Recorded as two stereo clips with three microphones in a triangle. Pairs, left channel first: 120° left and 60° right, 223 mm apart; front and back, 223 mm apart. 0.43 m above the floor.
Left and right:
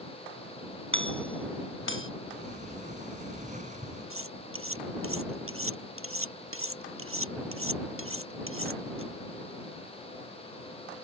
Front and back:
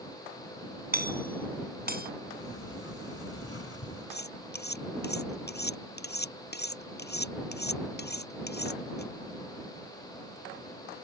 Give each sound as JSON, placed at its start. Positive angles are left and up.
{"t": 0.9, "sound": "a doorbell", "azimuth_deg": 135}
{"t": 2.3, "sound": "a sliding door", "azimuth_deg": -5}
{"t": 4.1, "sound": "cutlery clinking", "azimuth_deg": -45}